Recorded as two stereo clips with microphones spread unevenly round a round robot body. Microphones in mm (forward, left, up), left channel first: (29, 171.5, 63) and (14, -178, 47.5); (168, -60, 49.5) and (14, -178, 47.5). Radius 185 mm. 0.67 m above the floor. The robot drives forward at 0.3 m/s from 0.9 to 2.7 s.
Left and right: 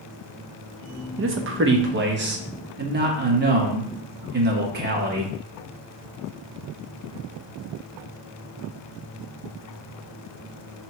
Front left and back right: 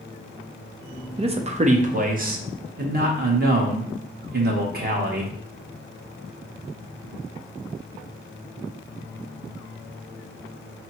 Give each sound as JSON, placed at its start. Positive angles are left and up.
{"t": 1.2, "sound": "a man speaking", "azimuth_deg": -105, "distance_m": 0.7}